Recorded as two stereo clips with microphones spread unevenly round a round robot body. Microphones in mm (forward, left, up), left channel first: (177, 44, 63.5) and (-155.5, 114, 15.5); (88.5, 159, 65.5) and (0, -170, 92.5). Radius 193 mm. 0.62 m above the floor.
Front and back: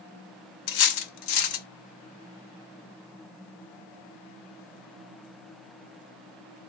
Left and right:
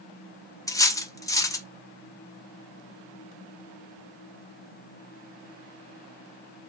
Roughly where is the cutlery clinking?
Ahead.